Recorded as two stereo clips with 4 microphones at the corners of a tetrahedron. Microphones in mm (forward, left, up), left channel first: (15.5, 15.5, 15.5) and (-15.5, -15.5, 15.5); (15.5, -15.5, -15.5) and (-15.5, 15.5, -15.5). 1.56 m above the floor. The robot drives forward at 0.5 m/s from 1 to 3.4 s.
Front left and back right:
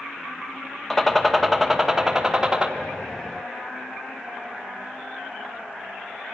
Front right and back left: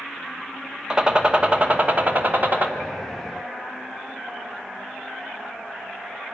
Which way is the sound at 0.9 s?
105° left.